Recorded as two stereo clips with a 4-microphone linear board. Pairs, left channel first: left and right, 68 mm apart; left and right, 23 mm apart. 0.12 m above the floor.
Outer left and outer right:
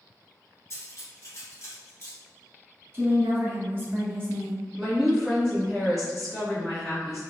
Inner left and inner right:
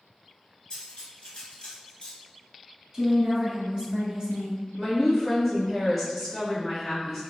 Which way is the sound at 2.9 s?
35° right (ahead or behind).